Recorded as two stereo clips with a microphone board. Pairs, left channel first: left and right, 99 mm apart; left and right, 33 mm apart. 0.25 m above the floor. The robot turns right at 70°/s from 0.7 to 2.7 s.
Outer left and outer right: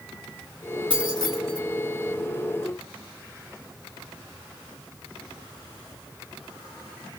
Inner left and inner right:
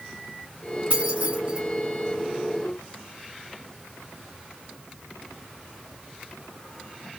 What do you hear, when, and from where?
0.9 s keys jangling: 60° right (ahead or behind), 1.9 m; by 1.6 s 30° right (ahead or behind), 1.9 m